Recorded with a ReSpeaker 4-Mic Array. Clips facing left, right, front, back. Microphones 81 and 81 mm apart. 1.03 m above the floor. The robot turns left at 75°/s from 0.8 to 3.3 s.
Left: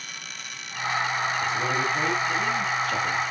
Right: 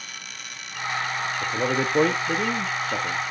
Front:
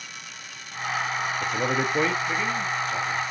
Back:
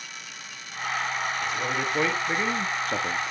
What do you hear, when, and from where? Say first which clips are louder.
1.4 s a man speaking: right 1 dB, front 3 dB; 40° right, 1.2 m; by 3.3 s straight behind, 1.2 m